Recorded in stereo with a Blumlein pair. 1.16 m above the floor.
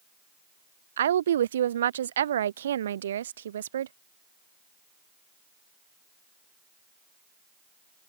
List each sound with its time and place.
1.0 s a woman speaking: 65° right